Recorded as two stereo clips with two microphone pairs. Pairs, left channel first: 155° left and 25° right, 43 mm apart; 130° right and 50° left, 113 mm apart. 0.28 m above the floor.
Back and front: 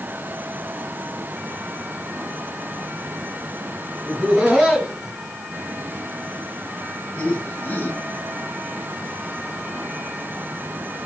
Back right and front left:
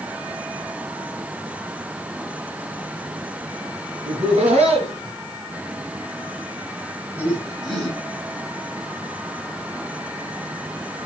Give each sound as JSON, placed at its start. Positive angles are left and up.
{"t": 4.0, "sound": "laughter", "azimuth_deg": 35, "distance_m": 3.0}